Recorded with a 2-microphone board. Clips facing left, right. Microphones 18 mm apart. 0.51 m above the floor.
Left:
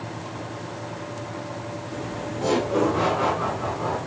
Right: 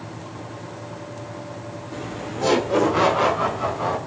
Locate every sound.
1.9 s laughter: 15° right (ahead or behind), 1.0 m; by 4.0 s 55° right (ahead or behind), 2.5 m